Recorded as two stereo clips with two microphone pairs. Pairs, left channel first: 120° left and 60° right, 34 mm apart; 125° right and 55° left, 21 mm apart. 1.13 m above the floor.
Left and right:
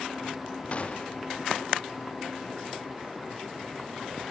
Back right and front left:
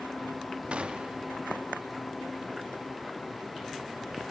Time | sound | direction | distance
0.7 | a gunshot | 70° left | 1.5 m